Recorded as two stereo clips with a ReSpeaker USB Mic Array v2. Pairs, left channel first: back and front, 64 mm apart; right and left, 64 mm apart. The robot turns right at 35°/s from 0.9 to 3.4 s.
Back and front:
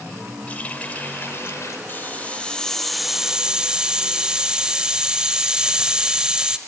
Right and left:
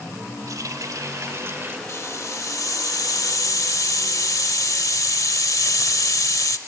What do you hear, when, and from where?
0.5 s a running tap: 115° left, 1.7 m; by 1.8 s 145° left, 1.7 m
1.9 s a hiss: 130° right, 0.6 m; by 6.6 s 75° right, 0.6 m